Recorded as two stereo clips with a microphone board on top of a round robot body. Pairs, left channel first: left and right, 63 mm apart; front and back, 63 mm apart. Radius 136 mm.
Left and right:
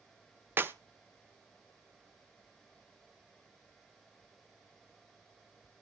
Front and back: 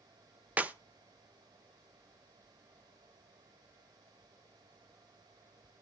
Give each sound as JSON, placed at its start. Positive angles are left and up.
{"t": 0.6, "sound": "a clap", "azimuth_deg": -125, "distance_m": 1.3}